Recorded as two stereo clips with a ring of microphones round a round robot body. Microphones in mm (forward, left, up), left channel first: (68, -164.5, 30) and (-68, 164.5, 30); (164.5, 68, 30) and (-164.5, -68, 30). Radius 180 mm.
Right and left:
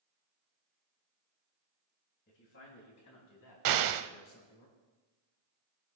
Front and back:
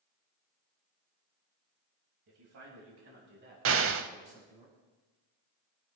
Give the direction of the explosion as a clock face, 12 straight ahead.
7 o'clock.